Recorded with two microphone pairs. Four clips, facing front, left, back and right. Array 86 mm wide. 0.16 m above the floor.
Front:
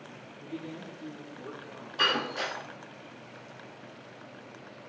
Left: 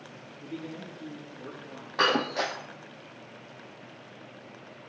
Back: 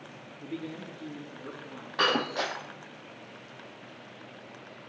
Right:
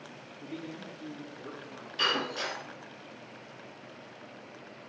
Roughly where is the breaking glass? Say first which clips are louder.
Left 6 dB, back 3 dB; behind left.